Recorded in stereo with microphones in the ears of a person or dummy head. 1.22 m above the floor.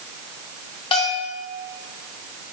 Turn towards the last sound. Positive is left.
turn(degrees=25)  # may be behind; listen again after turning